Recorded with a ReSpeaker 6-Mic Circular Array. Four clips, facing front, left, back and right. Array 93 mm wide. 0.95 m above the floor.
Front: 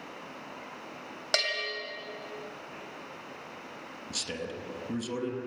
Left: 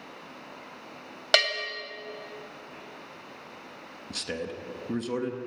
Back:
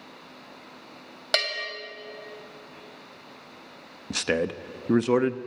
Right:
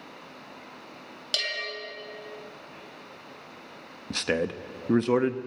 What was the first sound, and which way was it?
A bell, 105° left.